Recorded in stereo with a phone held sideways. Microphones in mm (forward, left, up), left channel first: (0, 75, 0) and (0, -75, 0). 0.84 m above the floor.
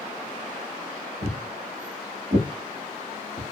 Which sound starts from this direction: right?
Footsteps, at 1.2 s.